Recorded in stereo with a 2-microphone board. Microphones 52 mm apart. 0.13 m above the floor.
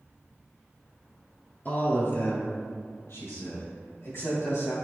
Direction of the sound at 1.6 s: 40° left (ahead or behind).